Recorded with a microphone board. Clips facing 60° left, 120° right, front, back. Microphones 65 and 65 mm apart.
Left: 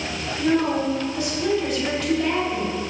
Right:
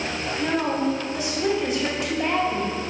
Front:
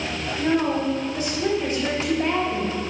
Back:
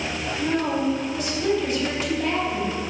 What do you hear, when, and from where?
0.4 s a woman speaking: 50° right, 3 m